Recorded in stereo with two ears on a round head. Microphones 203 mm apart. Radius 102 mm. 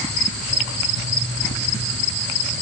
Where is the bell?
No bell in this recording.